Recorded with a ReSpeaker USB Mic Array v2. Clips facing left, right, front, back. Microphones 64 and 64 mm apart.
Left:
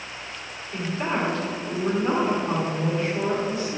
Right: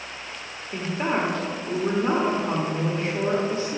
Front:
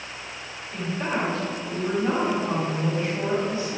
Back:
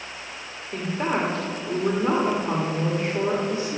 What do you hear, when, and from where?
0.7 s a woman speaking: 145° right, 1.6 m